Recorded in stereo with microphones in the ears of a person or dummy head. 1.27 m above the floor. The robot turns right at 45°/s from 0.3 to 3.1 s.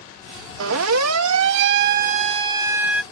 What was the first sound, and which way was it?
A siren, 75° right (ahead or behind).